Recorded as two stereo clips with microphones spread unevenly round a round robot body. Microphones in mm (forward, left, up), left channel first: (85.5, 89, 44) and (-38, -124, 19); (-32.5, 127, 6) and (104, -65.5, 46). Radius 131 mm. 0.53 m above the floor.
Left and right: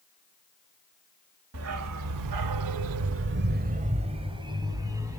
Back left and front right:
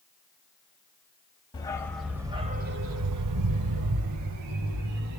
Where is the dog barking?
160° right, 0.8 m; by 5.2 s 40° right, 1.5 m.